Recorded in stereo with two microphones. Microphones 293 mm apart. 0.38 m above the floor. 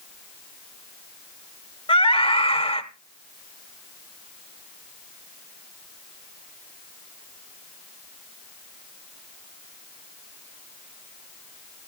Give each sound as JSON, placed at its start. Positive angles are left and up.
{"t": 1.9, "sound": "a scream", "side_deg": 20, "distance_m": 1.0}